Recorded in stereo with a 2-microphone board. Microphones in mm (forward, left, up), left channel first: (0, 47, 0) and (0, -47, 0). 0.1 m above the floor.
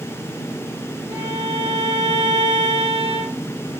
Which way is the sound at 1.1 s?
45° right (ahead or behind).